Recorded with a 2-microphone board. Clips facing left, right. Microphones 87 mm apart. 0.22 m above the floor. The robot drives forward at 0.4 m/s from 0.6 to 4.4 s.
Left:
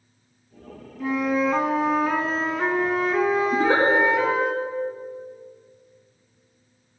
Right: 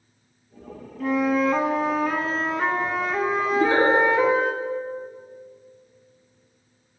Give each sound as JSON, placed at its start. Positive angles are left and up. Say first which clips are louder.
{"t": 1.0, "sound": "a flute", "louder": "right 1 dB", "side_deg": 5, "distance_m": 0.6}
{"t": 3.5, "sound": "a giggle", "louder": "right 3 dB", "side_deg": 60, "distance_m": 2.5}